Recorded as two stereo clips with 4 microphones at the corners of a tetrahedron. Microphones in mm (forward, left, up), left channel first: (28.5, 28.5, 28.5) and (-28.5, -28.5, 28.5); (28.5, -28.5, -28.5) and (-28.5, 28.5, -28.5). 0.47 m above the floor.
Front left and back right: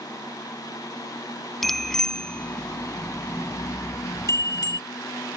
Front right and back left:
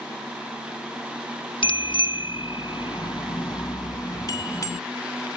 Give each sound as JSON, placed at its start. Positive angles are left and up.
{"t": 1.6, "sound": "a bicycle bell", "azimuth_deg": -45}